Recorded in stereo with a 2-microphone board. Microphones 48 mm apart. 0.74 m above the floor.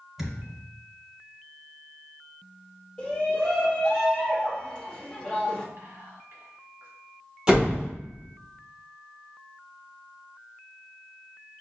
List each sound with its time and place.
0.2 s a thud: 5° right (ahead or behind), 1.2 m
3.0 s a shout: 15° left (ahead or behind), 1.2 m
5.8 s whispering: 55° right (ahead or behind), 1.5 m
7.5 s a door slam: 20° right (ahead or behind), 1.6 m